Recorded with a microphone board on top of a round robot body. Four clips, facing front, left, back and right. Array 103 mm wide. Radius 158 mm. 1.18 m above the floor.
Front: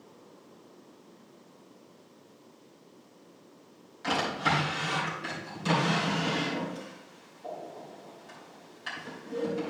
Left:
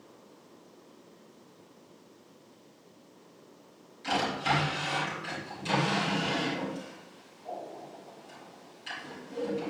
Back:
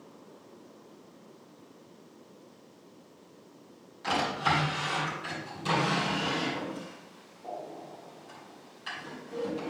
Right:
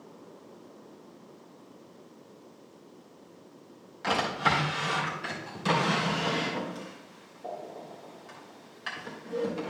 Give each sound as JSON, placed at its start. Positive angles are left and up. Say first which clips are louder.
{"t": 4.0, "sound": "a drawer", "louder": "right 2 dB, even", "azimuth_deg": -85, "distance_m": 3.0}